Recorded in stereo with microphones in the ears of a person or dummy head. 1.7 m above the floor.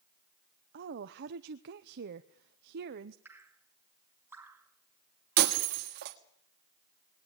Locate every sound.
0.7 s a woman speaking: 60° right (ahead or behind), 0.9 m
3.2 s dripping: 15° right (ahead or behind), 2.5 m
5.4 s breaking glass: 50° right (ahead or behind), 1.7 m